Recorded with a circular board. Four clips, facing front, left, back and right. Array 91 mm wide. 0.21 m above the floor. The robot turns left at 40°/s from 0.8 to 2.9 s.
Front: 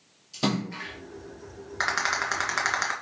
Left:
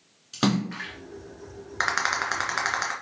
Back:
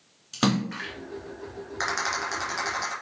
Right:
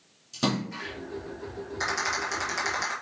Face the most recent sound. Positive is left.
turn(degrees=35)